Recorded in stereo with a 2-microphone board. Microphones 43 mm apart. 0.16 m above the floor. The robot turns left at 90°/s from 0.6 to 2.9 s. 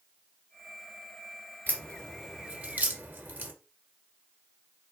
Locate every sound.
1.7 s a crack: 45° left (ahead or behind), 1.9 m; by 3.5 s 50° right (ahead or behind), 1.9 m